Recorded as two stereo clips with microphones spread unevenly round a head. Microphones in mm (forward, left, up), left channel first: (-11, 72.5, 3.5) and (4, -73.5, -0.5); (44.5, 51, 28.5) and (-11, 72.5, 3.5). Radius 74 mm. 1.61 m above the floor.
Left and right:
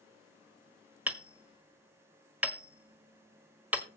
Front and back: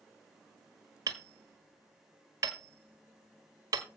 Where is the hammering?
160° right, 1.5 m.